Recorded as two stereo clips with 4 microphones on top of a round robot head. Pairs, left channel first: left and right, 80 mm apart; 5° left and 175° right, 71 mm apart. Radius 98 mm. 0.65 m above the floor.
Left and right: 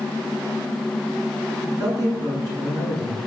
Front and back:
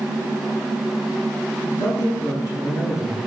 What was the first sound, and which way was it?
A man speaking, 50° right.